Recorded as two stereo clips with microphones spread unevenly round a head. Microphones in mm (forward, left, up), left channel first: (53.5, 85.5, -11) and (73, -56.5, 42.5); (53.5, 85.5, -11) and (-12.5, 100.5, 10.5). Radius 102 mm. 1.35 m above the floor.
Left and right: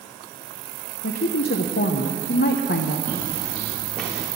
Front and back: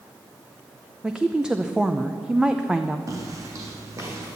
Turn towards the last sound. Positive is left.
turn(degrees=-155)